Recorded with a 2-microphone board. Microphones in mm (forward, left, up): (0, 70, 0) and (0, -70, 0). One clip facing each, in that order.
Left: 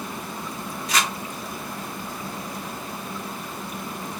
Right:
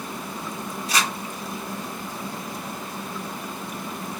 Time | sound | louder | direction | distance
0.9 | crumpling | even | 30° right (ahead or behind) | 1.7 m